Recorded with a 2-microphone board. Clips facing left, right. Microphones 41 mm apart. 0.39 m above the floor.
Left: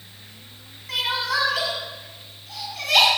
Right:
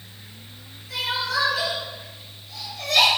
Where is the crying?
65° left (ahead or behind), 6.5 m.